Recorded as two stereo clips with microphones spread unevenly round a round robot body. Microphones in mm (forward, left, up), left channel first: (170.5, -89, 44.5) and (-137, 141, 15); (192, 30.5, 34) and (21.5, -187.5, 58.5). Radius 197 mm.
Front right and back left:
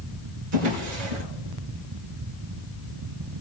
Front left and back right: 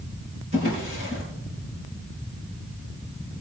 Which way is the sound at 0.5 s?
160° left.